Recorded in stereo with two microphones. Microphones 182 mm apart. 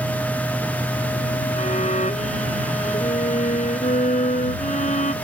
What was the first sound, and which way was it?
A violin, 40° left (ahead or behind).